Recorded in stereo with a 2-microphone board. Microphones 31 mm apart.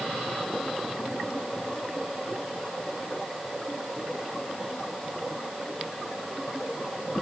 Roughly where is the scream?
No scream in this recording.